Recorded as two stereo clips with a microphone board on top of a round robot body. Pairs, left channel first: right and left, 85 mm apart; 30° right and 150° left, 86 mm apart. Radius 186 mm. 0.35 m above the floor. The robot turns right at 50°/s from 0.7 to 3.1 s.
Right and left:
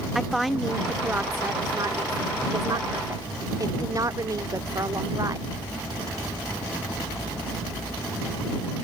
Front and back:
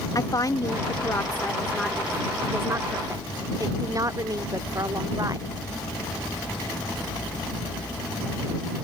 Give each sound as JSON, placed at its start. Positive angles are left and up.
{"t": 0.1, "sound": "a woman speaking", "azimuth_deg": 0}